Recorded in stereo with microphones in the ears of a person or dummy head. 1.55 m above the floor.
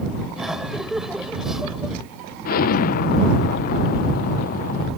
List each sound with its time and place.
0.4 s laughter: centre (ahead or behind)
2.5 s an explosion: 45° left (ahead or behind)